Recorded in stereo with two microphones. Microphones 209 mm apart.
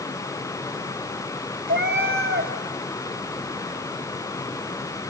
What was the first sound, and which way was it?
A cat meowing, 65° right (ahead or behind).